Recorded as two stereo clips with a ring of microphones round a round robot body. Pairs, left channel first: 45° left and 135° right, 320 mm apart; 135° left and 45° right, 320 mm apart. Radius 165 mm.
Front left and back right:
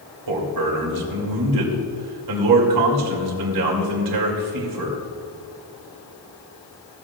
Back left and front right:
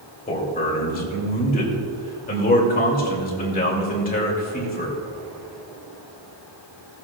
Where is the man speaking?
160° right, 2.5 m.